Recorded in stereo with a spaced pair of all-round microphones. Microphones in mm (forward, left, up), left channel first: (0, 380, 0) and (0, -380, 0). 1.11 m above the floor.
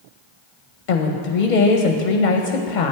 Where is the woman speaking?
70° left (ahead or behind), 0.8 m.